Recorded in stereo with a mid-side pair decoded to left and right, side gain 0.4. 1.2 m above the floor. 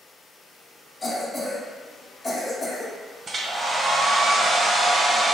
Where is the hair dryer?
40° right, 0.7 m.